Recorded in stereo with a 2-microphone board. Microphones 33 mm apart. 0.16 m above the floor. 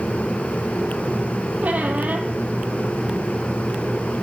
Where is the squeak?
60° right (ahead or behind), 1.5 m.